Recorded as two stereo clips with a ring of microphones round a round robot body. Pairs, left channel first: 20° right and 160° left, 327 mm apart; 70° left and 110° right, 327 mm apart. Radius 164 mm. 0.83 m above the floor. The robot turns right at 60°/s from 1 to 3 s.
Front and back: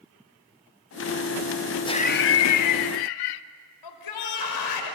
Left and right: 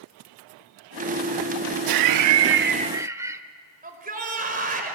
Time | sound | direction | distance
1.9 | laughter | 100° right | 0.9 m
3.8 | a shout | 45° right | 4.5 m